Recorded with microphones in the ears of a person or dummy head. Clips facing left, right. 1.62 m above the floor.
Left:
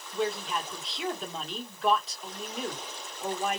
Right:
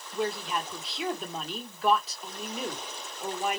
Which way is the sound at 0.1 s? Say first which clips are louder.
Even; 5° right (ahead or behind).